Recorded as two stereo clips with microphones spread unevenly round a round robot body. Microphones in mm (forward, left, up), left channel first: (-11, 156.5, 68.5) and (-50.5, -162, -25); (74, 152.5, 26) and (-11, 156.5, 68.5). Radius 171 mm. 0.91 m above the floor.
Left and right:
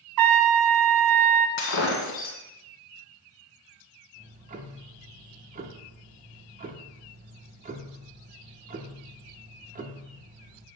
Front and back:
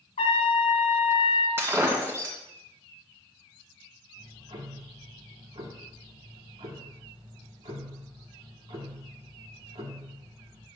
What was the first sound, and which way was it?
A trumpet, 60° right.